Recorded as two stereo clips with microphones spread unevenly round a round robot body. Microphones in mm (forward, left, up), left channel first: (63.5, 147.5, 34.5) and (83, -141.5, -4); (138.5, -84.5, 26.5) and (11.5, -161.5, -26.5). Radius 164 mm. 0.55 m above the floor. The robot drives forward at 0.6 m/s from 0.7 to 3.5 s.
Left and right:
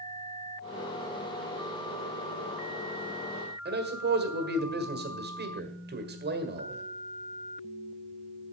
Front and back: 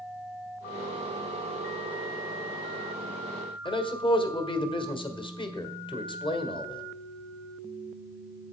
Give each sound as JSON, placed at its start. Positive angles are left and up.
{"t": 3.6, "sound": "a man speaking", "azimuth_deg": -35, "distance_m": 1.7}